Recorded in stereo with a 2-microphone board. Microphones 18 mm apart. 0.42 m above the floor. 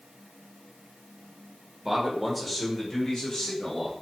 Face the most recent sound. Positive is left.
turn(degrees=45)  # may be behind; listen again after turning